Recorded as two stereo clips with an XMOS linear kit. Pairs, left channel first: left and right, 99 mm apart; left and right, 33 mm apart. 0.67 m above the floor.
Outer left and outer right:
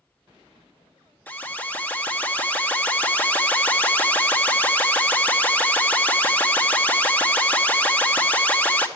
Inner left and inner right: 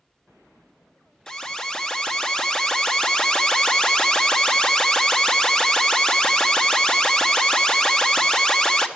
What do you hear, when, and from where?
1.3 s an alarm: 20° left (ahead or behind), 1.0 m